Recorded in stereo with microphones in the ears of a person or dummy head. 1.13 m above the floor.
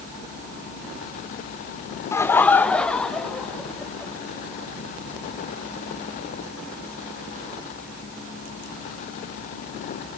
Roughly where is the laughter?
Centre.